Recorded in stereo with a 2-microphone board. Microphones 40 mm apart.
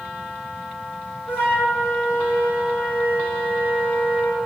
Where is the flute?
50° left (ahead or behind), 1.9 m.